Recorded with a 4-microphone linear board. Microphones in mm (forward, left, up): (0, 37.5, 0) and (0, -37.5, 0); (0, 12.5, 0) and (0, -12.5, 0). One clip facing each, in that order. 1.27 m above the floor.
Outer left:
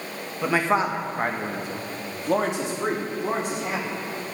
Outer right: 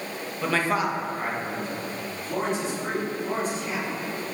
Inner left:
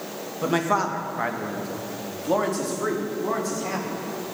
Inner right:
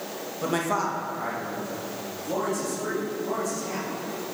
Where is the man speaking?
10° left (ahead or behind), 1.8 m; by 4.0 s 75° left (ahead or behind), 5 m.